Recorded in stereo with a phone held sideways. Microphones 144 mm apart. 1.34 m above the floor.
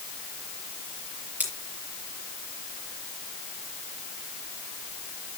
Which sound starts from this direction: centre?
Scissors, at 1.4 s.